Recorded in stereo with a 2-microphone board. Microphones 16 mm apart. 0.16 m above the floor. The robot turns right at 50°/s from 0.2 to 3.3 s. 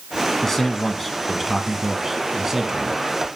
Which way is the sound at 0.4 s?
15° left (ahead or behind).